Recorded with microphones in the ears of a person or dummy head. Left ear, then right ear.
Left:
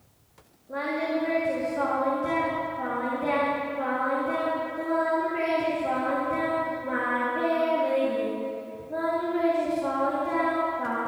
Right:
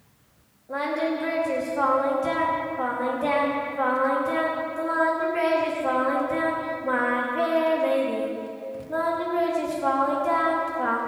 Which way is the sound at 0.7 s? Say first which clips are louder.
Right 2 dB; 35° right (ahead or behind).